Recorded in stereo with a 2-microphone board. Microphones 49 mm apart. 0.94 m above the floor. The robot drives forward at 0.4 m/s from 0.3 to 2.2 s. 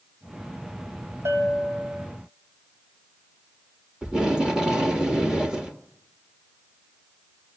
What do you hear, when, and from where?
1.2 s a bell: 70° right (ahead or behind), 2.5 m; by 2.1 s 65° right (ahead or behind), 2.5 m
4.0 s tape being pulled: 15° right (ahead or behind), 1.6 m